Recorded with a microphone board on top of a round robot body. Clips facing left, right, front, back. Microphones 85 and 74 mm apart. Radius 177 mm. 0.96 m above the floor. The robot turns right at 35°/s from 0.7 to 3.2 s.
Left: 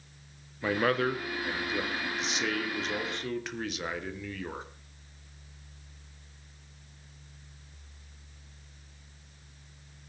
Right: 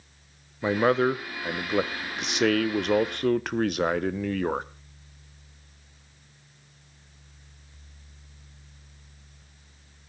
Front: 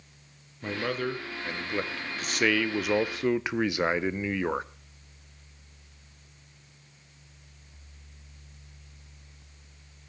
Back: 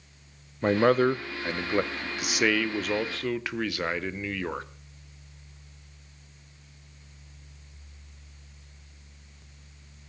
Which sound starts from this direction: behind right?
A man speaking, at 0.6 s.